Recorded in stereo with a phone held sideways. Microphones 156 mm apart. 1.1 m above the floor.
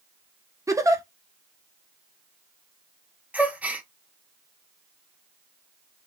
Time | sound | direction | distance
0.7 | a giggle | 20° right (ahead or behind) | 0.6 m
3.3 | a gasp | 10° right (ahead or behind) | 0.8 m